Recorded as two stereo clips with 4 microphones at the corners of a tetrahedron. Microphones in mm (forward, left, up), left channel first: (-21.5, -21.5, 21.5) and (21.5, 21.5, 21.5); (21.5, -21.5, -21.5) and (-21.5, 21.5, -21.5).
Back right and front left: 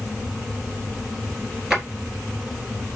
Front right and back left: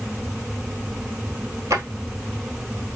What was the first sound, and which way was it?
A drawer, 125° left.